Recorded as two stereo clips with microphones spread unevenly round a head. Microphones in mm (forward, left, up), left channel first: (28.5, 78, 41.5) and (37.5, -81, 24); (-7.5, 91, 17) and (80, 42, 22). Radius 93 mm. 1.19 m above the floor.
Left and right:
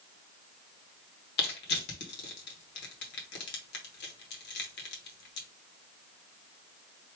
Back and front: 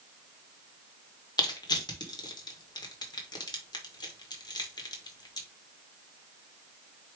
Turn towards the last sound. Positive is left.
turn(degrees=105)